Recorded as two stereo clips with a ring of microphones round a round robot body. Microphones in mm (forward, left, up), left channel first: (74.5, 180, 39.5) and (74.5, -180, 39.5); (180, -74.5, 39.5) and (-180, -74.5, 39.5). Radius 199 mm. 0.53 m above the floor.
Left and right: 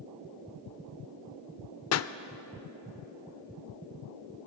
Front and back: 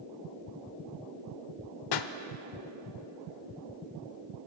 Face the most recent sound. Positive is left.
turn(degrees=35)